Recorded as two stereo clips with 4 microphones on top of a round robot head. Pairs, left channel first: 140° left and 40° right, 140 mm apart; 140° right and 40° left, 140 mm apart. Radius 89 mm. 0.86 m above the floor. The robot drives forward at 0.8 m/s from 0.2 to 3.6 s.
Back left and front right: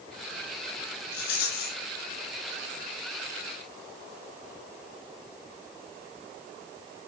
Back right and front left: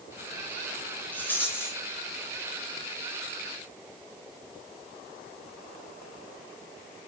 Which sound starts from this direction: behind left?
A rattle, at 1.1 s.